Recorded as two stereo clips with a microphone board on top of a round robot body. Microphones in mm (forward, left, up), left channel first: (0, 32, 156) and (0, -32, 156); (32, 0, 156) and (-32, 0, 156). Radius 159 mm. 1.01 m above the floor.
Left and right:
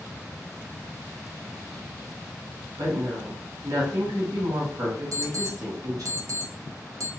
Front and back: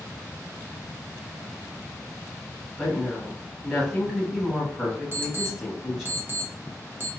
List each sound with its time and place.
2.8 s a woman speaking: 90° right, 1.8 m
5.1 s an alarm clock: 125° right, 0.7 m